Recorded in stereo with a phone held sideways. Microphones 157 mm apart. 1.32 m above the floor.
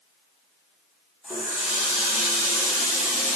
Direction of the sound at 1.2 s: 5° right (ahead or behind).